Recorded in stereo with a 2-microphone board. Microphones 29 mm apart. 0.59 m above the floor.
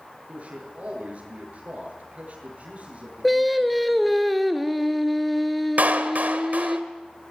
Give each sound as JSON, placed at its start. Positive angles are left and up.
{"t": 0.3, "sound": "a man speaking", "side_deg": -50, "distance_m": 9.0}
{"t": 3.2, "sound": "singing", "side_deg": 0, "distance_m": 1.4}
{"t": 5.8, "sound": "a clap", "side_deg": -70, "distance_m": 1.6}